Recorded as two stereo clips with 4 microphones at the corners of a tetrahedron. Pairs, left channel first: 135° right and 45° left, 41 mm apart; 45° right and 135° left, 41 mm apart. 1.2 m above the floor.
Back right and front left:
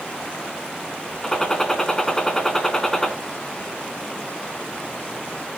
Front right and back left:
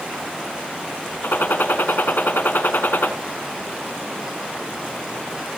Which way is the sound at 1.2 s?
60° right.